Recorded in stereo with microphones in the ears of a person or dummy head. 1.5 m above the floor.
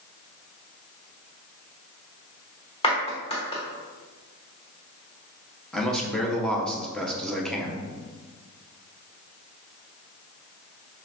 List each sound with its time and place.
2.8 s a clap: 30° left (ahead or behind), 1.1 m
5.7 s a man speaking: centre (ahead or behind), 0.8 m